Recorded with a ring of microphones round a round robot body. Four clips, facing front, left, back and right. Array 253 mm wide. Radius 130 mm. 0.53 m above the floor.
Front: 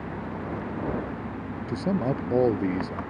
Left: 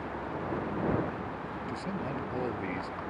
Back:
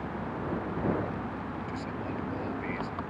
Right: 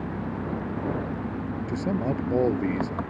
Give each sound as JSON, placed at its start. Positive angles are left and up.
{"t": 0.0, "sound": "an engine running", "azimuth_deg": -75}
{"t": 1.7, "sound": "a man speaking", "azimuth_deg": -35}